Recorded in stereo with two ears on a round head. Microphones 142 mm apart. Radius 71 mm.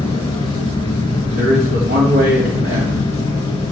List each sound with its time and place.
0.0 s an engine running: 25° left (ahead or behind), 5.5 m
1.4 s a man speaking: 85° right, 3 m